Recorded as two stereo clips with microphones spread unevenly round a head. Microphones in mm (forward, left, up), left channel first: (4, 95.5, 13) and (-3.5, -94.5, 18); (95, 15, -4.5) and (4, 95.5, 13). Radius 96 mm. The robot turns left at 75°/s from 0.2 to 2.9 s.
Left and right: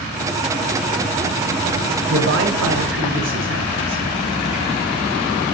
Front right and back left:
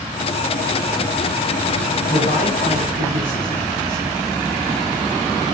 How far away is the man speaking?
About 7.5 m.